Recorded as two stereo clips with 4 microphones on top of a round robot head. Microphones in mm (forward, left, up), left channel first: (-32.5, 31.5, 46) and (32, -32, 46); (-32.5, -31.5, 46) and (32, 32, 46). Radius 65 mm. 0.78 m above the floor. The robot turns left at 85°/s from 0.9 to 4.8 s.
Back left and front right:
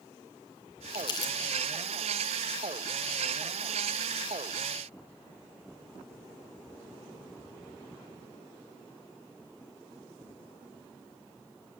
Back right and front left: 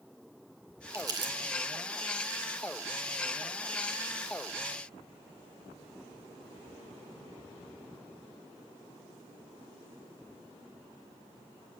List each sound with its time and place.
0.9 s crumpling: 110° left, 3.5 m; by 1.3 s 75° left, 3.5 m